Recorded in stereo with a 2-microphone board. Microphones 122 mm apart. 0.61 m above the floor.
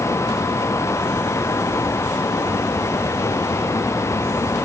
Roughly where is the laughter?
No laughter in this recording.